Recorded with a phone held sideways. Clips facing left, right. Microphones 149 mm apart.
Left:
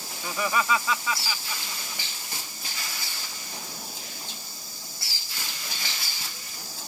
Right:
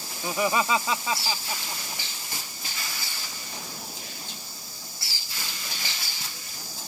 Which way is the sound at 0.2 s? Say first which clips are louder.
Right 2 dB; 20° right (ahead or behind).